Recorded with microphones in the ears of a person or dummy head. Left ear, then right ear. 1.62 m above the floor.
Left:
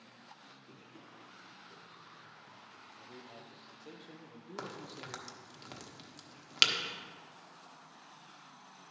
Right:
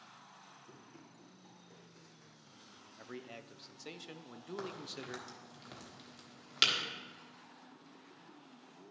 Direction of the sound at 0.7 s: 10° right (ahead or behind).